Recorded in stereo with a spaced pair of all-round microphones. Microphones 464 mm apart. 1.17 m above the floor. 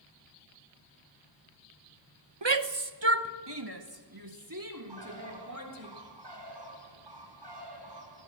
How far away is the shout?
About 1.2 m.